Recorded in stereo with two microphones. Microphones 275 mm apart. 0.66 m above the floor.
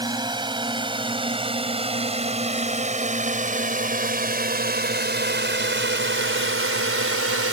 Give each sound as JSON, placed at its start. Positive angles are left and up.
{"t": 0.0, "sound": "a drone", "side_deg": -15}